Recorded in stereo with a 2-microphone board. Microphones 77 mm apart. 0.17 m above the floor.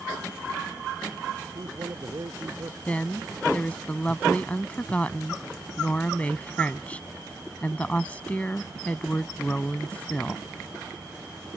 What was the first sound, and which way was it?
A man speaking, 50° right (ahead or behind).